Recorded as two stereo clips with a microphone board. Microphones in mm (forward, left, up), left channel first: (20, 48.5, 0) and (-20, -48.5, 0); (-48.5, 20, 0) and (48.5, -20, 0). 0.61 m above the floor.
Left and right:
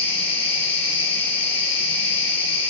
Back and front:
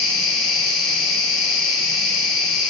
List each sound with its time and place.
0.0 s an insect: 70° left, 1.8 m